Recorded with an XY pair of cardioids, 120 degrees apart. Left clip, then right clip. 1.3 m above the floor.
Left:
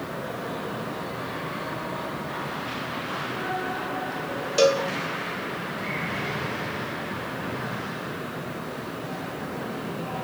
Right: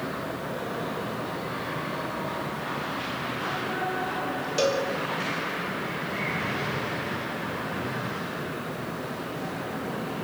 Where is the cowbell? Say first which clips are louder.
Left 5 dB; 25° left, 3 m.